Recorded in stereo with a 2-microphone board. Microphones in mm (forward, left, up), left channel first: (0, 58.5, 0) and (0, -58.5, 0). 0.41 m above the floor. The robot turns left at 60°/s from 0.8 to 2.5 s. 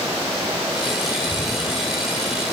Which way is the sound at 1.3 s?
30° left (ahead or behind).